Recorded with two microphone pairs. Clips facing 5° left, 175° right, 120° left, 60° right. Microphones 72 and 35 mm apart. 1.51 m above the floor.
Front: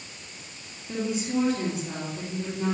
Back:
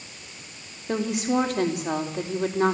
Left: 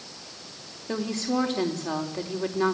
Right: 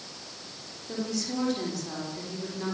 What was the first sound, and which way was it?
A woman speaking, 165° left.